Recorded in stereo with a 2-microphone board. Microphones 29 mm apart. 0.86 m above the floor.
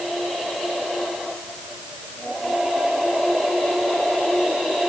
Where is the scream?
No scream in this recording.